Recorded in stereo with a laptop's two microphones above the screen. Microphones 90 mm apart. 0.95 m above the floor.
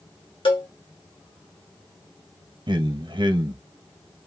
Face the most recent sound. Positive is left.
turn(degrees=-60)  # may be behind; listen again after turning